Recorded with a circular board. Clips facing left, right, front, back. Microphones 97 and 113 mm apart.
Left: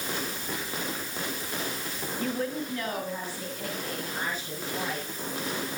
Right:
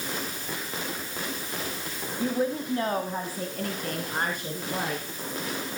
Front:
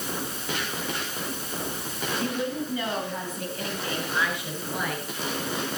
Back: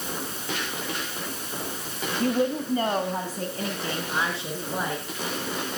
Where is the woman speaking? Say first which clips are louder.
Right 4 dB, back 7 dB; 165° right, 1.6 m; by 5.0 s 115° right, 4.5 m.